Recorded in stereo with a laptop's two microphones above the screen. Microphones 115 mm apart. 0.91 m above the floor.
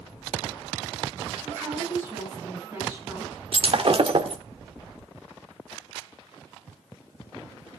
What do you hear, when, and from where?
1.4 s a woman speaking: 15° right (ahead or behind), 8 m
3.5 s breaking glass: 55° right (ahead or behind), 1.1 m